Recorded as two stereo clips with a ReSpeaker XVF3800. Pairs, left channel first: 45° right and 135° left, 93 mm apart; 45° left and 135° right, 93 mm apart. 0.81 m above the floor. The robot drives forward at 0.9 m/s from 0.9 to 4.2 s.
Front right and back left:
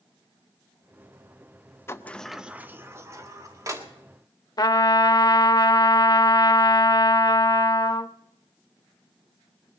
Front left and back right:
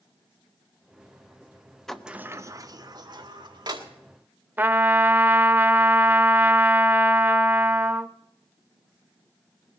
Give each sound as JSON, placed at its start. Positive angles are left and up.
{"t": 1.9, "sound": "a sliding door", "azimuth_deg": -35, "distance_m": 0.6}
{"t": 4.6, "sound": "a trumpet", "azimuth_deg": -70, "distance_m": 0.6}